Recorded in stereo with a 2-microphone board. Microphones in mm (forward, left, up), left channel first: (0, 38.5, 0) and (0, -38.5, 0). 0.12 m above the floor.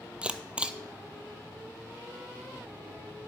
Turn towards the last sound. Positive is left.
turn(degrees=-15)  # may be behind; listen again after turning